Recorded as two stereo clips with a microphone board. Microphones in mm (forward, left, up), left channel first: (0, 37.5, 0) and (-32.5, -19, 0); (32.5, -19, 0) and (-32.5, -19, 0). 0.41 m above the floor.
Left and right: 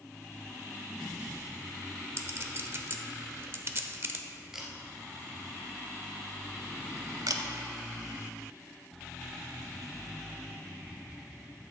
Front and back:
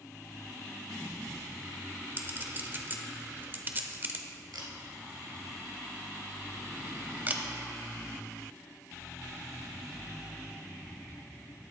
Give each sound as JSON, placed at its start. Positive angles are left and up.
{"t": 2.2, "sound": "a clink", "azimuth_deg": -140, "distance_m": 1.0}
{"t": 4.5, "sound": "a camera shutter", "azimuth_deg": 160, "distance_m": 2.5}
{"t": 7.3, "sound": "a camera shutter", "azimuth_deg": -120, "distance_m": 0.9}